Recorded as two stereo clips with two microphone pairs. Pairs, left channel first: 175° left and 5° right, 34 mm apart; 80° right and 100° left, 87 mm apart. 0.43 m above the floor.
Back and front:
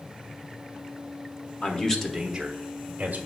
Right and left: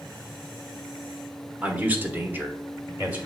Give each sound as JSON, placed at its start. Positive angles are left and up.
{"t": 1.6, "sound": "a man speaking", "azimuth_deg": 160, "distance_m": 1.0}